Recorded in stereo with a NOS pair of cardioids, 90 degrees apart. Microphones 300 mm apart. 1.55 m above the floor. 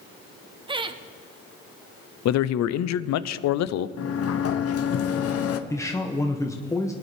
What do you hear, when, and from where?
0.7 s laughter: 15° right, 1.2 m
2.2 s a man speaking: 65° left, 0.6 m
4.0 s a sliding door: 50° left, 0.9 m
5.7 s a man speaking: 10° left, 1.0 m